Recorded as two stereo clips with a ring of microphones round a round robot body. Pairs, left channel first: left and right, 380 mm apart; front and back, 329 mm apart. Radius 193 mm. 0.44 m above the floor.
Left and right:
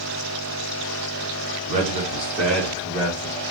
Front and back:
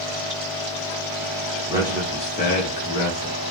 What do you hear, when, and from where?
1.7 s a man speaking: 125° right, 1.0 m; by 3.4 s 15° left, 1.6 m